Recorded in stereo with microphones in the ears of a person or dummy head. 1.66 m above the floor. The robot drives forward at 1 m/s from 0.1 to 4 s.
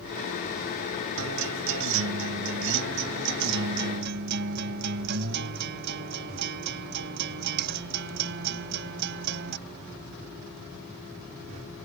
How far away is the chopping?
I don't hear chopping.